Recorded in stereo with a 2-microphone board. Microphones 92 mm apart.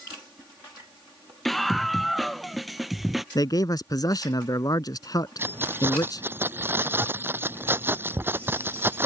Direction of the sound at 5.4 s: 25° right (ahead or behind).